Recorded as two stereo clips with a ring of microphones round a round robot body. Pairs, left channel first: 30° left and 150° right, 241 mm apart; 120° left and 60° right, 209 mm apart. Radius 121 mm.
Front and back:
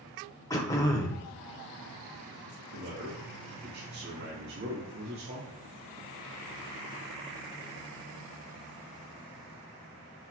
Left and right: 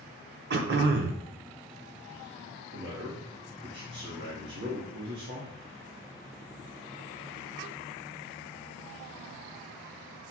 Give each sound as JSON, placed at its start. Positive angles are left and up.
{"t": 0.5, "sound": "throat clearing", "azimuth_deg": -45, "distance_m": 0.9}
{"t": 2.7, "sound": "a man speaking", "azimuth_deg": -105, "distance_m": 1.4}